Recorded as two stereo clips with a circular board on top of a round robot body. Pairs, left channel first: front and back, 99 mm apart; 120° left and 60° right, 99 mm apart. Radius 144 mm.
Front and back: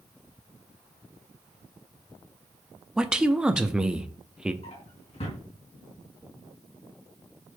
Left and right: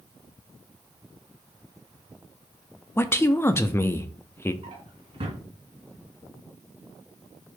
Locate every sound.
3.0 s a man speaking: 110° left, 1.0 m
4.6 s a drawer: 20° right, 2.5 m